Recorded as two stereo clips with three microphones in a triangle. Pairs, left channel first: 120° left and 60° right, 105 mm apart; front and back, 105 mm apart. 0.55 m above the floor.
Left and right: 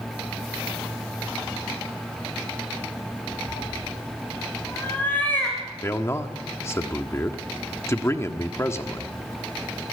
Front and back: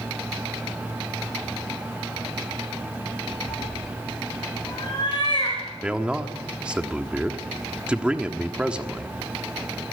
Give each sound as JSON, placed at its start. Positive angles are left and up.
{"t": 3.5, "sound": "a cat meowing", "azimuth_deg": 50, "distance_m": 5.0}
{"t": 5.8, "sound": "a man speaking", "azimuth_deg": 115, "distance_m": 1.3}